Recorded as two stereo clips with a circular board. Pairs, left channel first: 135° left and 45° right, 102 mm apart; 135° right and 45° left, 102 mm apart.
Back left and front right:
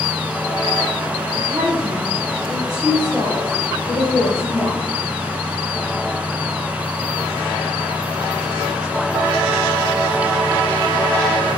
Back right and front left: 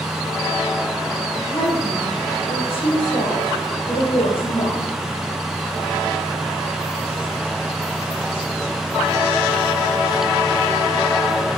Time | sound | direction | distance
1.4 | a woman speaking | 105° right | 3.5 m